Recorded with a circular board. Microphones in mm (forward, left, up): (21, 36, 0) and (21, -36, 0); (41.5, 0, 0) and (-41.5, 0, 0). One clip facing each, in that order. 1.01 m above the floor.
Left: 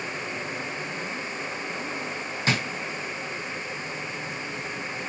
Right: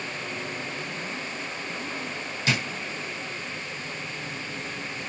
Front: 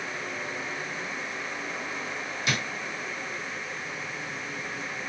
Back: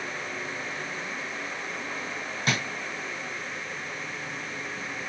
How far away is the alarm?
No alarm in this recording.